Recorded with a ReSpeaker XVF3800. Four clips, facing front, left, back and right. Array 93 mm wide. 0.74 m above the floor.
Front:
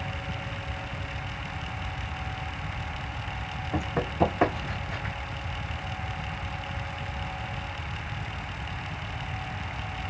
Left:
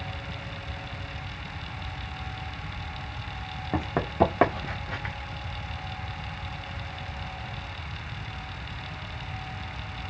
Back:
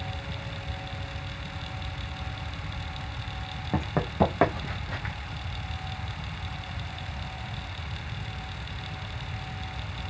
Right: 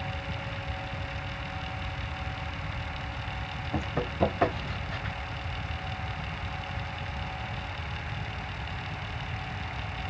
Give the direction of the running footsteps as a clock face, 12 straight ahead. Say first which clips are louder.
Left 6 dB, back 1 dB; 8 o'clock.